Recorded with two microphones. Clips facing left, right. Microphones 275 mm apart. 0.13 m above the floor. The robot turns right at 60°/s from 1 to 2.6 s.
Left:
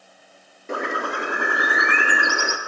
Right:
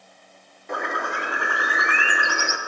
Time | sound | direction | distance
0.7 | a bird | 40° left | 0.7 m